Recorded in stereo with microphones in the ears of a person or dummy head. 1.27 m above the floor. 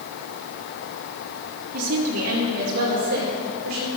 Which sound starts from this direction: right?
A woman speaking, at 1.7 s.